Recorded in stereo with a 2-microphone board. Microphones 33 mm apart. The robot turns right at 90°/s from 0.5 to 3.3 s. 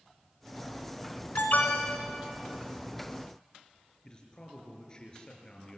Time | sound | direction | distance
1.4 | an alarm | 95° left | 2.5 m
4.0 | a man speaking | 25° left (ahead or behind) | 5.5 m